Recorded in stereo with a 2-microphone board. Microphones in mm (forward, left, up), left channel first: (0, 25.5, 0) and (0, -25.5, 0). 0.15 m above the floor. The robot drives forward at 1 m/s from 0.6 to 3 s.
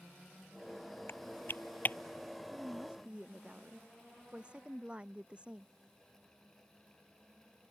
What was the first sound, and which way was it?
Typing on a keyboard, 55° left (ahead or behind).